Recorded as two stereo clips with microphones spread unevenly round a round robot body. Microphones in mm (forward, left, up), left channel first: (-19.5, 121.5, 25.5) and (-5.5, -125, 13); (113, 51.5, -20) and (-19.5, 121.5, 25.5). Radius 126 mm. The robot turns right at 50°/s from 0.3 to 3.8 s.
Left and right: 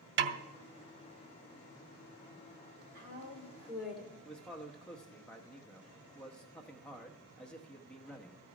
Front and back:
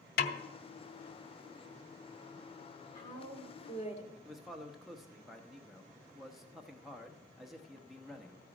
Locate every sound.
0.2 s a snare drum: 40° right, 0.6 m; by 0.4 s 35° right, 0.6 m
3.0 s a woman speaking: 40° right, 2 m; by 4.2 s 5° left, 2 m
4.2 s a man speaking: 10° left, 0.9 m